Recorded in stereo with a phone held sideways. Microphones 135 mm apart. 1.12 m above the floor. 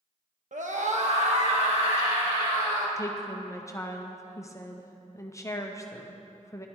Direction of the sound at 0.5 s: 65° right (ahead or behind).